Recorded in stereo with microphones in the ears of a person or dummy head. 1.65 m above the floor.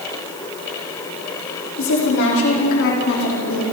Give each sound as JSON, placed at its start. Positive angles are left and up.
{"t": 1.8, "sound": "a woman speaking", "side_deg": 70, "distance_m": 5.0}